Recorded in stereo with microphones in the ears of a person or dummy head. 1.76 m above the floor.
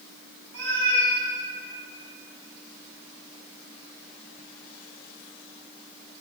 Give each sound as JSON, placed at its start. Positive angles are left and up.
{"t": 0.5, "sound": "a cat meowing", "side_deg": -65, "distance_m": 2.0}